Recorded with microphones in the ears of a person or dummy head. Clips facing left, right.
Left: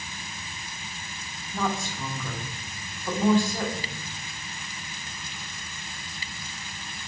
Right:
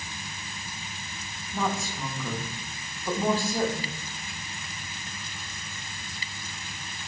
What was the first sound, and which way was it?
A woman speaking, 5° right (ahead or behind).